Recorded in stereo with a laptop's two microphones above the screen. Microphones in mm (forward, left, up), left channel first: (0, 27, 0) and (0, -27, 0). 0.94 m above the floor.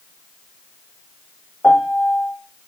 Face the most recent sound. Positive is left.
turn(degrees=30)  # may be behind; listen again after turning